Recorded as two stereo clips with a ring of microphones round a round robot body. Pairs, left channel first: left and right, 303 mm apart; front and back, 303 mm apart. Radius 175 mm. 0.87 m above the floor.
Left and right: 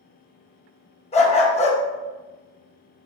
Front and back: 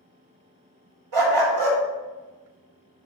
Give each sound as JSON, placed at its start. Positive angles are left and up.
{"t": 1.1, "sound": "a dog barking", "azimuth_deg": 160, "distance_m": 0.9}